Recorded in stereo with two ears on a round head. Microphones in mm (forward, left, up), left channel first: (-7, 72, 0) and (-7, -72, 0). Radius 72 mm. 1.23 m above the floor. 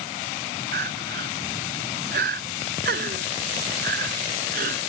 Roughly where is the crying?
Right.